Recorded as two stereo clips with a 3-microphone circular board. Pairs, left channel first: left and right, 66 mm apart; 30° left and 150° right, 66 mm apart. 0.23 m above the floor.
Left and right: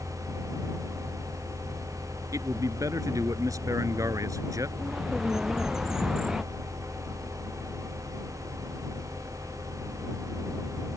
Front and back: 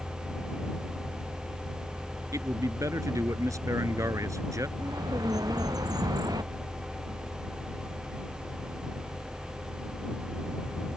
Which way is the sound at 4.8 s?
170° right.